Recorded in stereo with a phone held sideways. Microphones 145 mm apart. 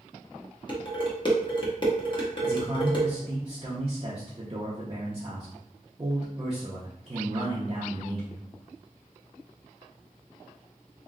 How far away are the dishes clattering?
About 1.1 m.